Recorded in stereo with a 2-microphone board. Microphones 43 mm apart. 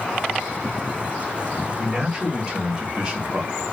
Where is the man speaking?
15° right (ahead or behind), 1.7 m; by 3.6 s 20° right (ahead or behind), 1.3 m.